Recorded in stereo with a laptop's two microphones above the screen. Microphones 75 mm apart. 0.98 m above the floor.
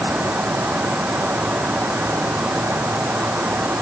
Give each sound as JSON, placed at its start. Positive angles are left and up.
{"t": 0.0, "sound": "a fan", "side_deg": -20}